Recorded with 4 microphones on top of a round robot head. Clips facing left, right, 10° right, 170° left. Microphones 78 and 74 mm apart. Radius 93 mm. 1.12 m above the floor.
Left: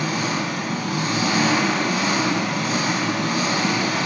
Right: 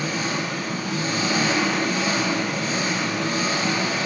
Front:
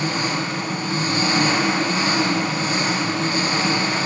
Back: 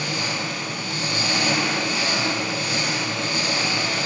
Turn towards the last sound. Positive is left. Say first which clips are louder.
# left 2 dB, front 4 dB
turn(degrees=50)